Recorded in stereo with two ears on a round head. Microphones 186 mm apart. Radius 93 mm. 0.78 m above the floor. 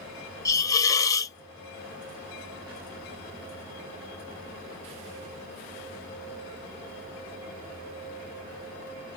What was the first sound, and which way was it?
A hiss, 15° left (ahead or behind).